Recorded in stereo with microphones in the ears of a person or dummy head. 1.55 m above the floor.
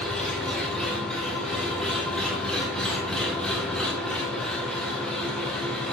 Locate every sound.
0.0 s an engine running: 5° left (ahead or behind), 1.0 m